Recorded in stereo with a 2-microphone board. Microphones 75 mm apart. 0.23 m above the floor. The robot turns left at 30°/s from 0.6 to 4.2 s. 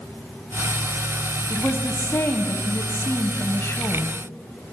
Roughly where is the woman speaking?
Behind left.